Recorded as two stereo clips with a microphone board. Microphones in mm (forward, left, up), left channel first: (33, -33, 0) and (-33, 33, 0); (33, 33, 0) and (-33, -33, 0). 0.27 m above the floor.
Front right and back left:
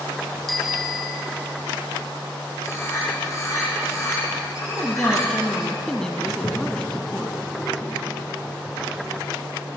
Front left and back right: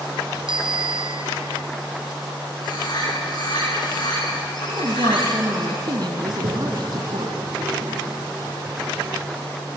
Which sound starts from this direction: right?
A toilet flushing, at 6.3 s.